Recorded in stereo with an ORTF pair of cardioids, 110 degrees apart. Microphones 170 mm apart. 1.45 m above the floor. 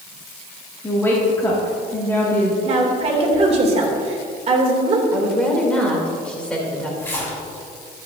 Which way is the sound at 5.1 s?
5° left.